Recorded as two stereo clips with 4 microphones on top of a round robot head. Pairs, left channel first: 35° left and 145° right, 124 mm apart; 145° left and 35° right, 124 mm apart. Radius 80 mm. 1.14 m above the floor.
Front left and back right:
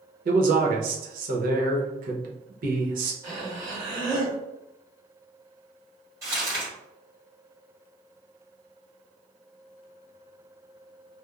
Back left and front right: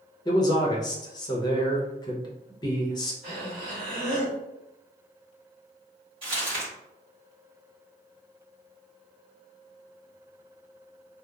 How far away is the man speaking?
About 0.7 m.